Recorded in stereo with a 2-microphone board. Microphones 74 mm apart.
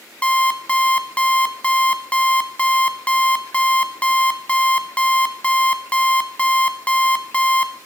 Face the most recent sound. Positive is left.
turn(degrees=15)  # may be behind; listen again after turning